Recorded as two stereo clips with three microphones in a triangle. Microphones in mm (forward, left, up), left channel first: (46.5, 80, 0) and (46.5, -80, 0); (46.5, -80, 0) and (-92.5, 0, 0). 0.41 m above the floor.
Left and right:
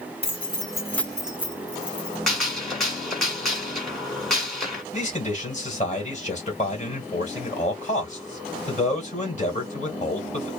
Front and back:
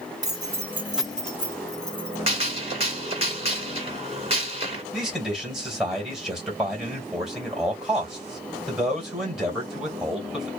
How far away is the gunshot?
About 1.6 m.